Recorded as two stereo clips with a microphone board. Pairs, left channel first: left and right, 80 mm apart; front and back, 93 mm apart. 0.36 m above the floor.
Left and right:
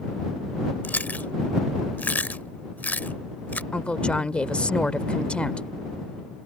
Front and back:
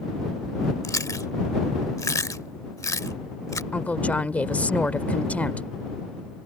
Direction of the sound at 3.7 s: 40° left.